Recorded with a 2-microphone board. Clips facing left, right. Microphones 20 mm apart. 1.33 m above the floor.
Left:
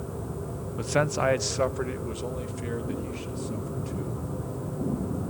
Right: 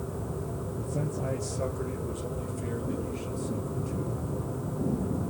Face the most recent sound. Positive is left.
turn(degrees=20)  # may be behind; listen again after turning